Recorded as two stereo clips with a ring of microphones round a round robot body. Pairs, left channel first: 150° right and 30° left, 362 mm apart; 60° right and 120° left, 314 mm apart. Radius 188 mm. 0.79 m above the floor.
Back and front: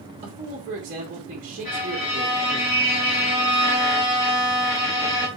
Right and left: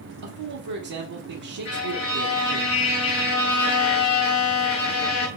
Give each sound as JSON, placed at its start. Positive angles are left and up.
{"t": 0.2, "sound": "a man speaking", "azimuth_deg": 100, "distance_m": 1.4}
{"t": 1.6, "sound": "a violin", "azimuth_deg": -110, "distance_m": 2.5}